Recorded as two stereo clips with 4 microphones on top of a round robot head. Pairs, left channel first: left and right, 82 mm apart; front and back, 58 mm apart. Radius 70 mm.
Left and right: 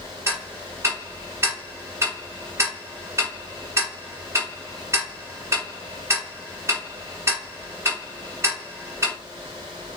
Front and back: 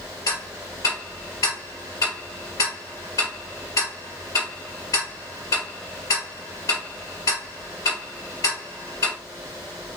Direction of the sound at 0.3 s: 35° right.